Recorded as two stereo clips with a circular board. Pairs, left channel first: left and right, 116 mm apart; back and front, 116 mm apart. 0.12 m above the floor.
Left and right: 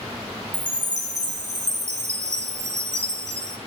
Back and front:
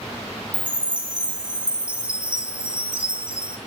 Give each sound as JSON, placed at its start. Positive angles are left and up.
{"t": 0.5, "sound": "a chime", "azimuth_deg": -80, "distance_m": 0.8}